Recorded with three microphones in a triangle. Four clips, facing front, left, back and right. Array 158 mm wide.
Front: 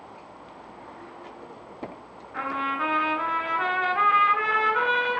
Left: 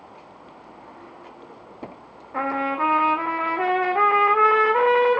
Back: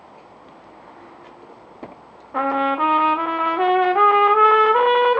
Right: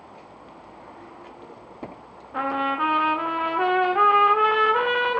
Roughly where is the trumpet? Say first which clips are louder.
Even, back 9 dB; behind.